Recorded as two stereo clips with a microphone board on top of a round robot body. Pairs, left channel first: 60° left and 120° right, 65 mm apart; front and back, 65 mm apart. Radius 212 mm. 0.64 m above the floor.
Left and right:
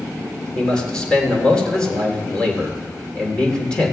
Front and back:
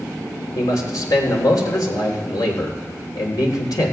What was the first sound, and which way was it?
A man speaking, 15° right.